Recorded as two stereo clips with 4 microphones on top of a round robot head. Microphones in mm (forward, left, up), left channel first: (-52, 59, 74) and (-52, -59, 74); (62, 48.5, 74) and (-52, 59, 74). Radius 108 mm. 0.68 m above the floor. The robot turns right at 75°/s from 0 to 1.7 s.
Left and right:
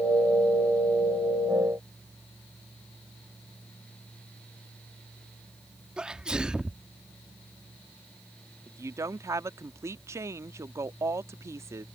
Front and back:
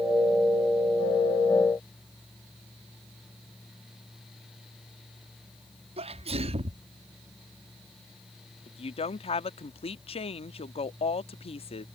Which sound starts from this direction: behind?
A sneeze, at 6.0 s.